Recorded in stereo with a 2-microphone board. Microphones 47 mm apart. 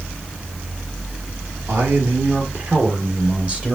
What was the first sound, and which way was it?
A man speaking, 50° right (ahead or behind).